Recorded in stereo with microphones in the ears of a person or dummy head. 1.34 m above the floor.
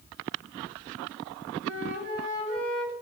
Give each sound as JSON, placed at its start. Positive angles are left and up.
{"t": 1.6, "sound": "a flute", "side_deg": -65, "distance_m": 1.4}